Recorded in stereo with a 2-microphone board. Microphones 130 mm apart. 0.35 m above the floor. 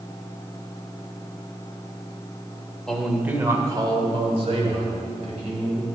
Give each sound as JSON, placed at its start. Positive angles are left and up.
{"t": 2.9, "sound": "a man speaking", "side_deg": 5, "distance_m": 1.2}